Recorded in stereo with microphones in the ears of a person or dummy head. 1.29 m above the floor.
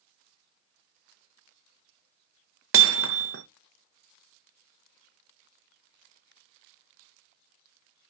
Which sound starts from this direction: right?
Hammering, at 2.7 s.